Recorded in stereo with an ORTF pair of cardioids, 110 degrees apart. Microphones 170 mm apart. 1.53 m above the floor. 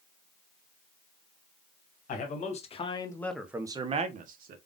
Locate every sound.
2.1 s a man speaking: 50° left, 1.4 m; by 4.6 s 60° right, 1.2 m